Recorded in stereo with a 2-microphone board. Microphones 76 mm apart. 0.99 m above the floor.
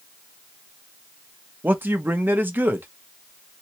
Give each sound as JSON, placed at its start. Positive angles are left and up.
{"t": 1.6, "sound": "a man speaking", "side_deg": -25, "distance_m": 0.7}